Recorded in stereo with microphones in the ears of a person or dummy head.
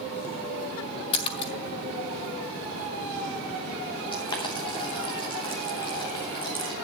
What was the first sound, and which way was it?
A splash, 30° left (ahead or behind).